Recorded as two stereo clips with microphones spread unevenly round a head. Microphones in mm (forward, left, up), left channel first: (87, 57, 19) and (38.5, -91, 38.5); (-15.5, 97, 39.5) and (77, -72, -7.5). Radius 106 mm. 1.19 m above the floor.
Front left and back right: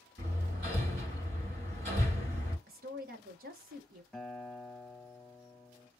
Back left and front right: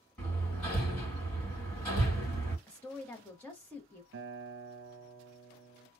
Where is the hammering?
165° right, 2.5 m.